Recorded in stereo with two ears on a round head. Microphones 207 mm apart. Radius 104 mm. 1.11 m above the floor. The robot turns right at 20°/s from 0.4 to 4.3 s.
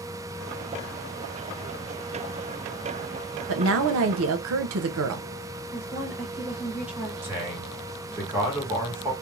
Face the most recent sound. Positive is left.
turn(degrees=-10)  # may be behind; listen again after turning